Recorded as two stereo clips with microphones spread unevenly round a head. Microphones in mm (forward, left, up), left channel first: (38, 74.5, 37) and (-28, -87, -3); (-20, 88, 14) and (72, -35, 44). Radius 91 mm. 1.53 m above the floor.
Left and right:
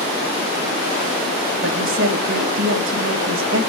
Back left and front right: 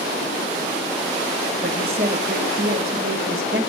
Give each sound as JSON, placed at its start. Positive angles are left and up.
{"t": 1.6, "sound": "a woman speaking", "azimuth_deg": -95, "distance_m": 1.8}